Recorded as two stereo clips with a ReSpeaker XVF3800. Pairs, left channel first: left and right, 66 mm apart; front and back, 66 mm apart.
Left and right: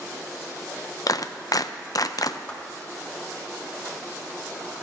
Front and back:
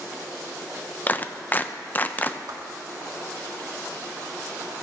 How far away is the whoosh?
About 1.4 m.